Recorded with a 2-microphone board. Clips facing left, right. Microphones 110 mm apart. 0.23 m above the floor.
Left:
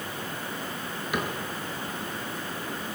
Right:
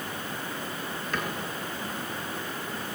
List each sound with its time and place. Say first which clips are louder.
1.1 s a cupboard door: left 3 dB; 10° left (ahead or behind), 5 m